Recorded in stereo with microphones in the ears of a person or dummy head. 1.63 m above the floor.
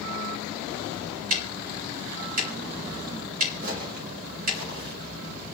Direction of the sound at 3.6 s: 55° right (ahead or behind).